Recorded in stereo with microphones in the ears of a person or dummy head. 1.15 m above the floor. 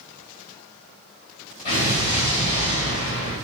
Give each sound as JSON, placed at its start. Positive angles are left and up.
{"t": 1.6, "sound": "an explosion", "side_deg": 35, "distance_m": 1.3}